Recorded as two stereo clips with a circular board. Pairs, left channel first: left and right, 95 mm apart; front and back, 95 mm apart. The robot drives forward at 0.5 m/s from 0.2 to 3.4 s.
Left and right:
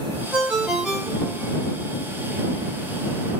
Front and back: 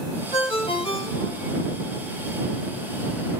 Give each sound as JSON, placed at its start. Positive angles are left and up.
{"t": 0.3, "sound": "a ringtone", "azimuth_deg": -15, "distance_m": 2.5}